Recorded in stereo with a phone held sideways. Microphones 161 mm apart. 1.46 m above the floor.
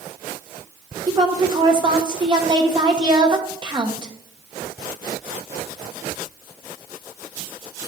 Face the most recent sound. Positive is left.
turn(degrees=-25)  # may be behind; listen again after turning